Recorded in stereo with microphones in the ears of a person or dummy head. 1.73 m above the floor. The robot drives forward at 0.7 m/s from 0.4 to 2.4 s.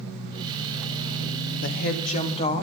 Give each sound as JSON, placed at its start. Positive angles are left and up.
{"t": 1.6, "sound": "a woman speaking", "side_deg": 55, "distance_m": 0.7}